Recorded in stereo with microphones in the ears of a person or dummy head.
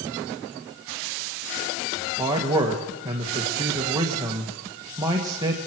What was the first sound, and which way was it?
A man speaking, 20° right (ahead or behind).